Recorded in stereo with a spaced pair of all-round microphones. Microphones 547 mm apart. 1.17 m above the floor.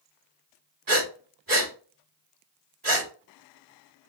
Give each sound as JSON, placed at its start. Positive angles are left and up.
{"t": 0.9, "sound": "breathing", "side_deg": -35, "distance_m": 2.0}